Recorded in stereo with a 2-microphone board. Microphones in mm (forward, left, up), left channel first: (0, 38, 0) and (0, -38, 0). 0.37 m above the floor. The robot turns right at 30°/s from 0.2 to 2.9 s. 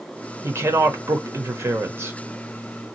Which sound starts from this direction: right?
A woman speaking, at 0.4 s.